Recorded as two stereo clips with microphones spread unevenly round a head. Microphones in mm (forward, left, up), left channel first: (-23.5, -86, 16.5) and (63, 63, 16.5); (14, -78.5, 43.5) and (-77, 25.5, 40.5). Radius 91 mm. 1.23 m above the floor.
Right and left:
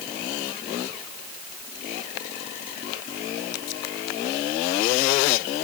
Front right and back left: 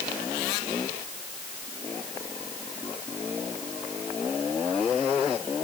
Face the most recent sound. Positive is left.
No sound to turn to.